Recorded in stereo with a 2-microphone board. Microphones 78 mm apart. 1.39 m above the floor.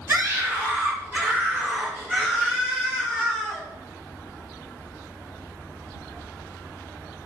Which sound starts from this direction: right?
A scream, at 0.1 s.